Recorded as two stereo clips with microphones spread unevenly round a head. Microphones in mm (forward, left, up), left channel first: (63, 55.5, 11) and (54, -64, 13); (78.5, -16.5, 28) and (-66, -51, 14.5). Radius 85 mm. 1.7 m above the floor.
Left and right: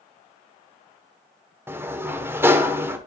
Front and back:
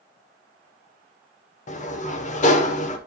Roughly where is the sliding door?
Ahead right.